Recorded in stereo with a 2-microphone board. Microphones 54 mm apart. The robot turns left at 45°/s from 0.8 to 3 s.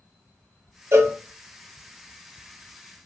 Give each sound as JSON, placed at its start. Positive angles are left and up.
{"t": 0.9, "sound": "a cowbell", "side_deg": -60, "distance_m": 0.6}